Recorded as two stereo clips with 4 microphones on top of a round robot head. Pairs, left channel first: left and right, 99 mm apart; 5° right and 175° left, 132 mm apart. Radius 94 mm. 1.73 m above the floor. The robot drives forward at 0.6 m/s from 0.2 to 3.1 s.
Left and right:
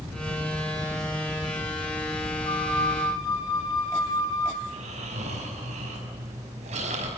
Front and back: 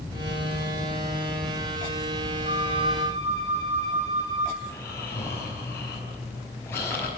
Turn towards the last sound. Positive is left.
turn(degrees=-80)